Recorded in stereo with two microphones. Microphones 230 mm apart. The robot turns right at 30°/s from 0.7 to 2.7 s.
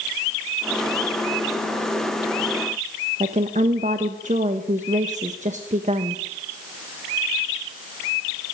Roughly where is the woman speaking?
Right.